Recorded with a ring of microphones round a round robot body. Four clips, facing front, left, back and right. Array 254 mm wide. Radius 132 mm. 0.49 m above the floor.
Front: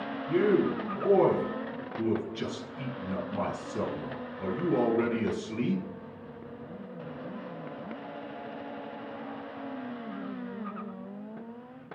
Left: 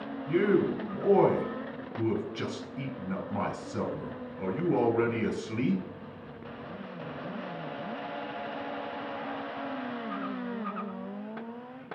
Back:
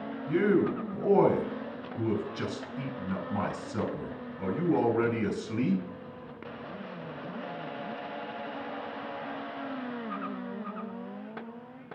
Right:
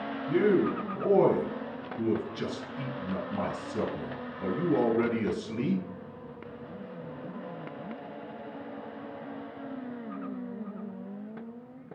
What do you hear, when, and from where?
0.3 s a man speaking: 135° left, 4 m